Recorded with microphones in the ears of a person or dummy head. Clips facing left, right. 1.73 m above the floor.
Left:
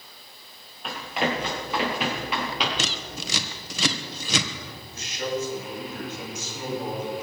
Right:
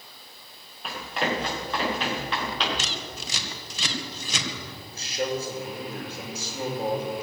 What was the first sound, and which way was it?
Running footsteps, 5° left (ahead or behind).